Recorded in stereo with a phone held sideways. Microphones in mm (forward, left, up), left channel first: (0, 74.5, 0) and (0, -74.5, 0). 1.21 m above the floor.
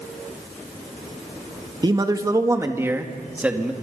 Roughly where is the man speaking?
Right.